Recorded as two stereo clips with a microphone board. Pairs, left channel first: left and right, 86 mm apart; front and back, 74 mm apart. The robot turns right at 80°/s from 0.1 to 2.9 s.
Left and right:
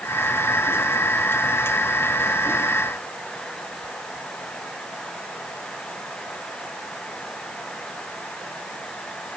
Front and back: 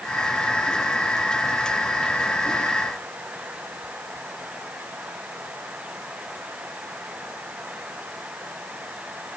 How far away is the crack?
No crack in this recording.